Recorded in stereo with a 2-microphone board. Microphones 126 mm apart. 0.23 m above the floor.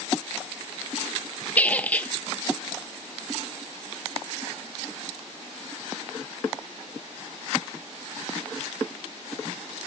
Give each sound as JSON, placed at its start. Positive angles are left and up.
{"t": 1.6, "sound": "a squeak", "side_deg": 10, "distance_m": 0.6}